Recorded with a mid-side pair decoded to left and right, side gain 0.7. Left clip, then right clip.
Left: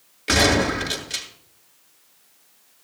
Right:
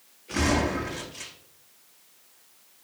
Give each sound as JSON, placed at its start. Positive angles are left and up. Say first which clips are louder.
{"t": 0.3, "sound": "a gunshot", "louder": "left 7 dB", "azimuth_deg": 70, "distance_m": 6.5}